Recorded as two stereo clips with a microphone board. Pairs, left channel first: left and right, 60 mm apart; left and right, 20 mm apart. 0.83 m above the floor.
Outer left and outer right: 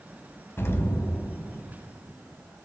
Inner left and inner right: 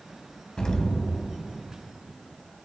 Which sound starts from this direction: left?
An explosion, at 0.6 s.